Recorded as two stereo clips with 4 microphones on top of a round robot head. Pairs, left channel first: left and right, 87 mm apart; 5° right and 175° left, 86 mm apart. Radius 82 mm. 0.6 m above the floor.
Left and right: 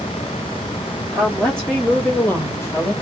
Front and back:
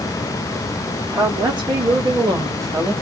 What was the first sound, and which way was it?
A woman speaking, 175° left.